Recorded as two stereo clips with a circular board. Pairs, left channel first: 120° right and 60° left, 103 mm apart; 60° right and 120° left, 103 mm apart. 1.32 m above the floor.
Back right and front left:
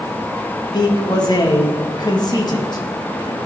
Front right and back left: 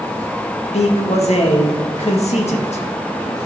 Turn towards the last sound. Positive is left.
turn(degrees=-70)